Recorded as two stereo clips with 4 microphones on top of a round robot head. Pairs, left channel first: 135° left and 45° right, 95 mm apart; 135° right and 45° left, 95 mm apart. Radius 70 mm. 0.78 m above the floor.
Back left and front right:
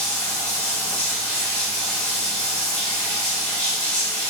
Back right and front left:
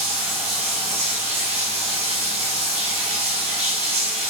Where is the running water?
55° left, 1.0 m.